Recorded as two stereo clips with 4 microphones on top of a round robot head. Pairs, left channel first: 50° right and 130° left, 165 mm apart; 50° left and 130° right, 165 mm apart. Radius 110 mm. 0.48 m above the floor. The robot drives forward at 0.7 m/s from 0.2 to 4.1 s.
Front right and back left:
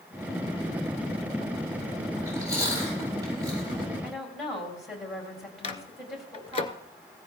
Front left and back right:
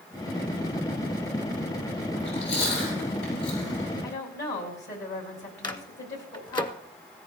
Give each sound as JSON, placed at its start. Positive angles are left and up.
{"t": 2.2, "sound": "chewing", "azimuth_deg": 60, "distance_m": 8.5}
{"t": 4.0, "sound": "a woman speaking", "azimuth_deg": 45, "distance_m": 3.5}
{"t": 5.6, "sound": "a microwave", "azimuth_deg": -5, "distance_m": 1.1}